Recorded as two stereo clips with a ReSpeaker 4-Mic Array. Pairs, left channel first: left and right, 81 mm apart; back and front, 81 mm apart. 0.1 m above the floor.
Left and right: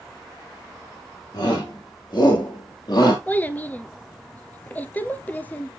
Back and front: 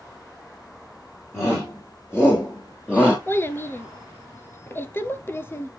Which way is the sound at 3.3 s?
145° left.